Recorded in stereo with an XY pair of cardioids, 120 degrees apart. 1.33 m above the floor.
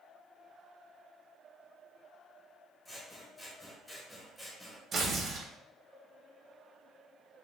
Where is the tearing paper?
45° right, 0.6 m.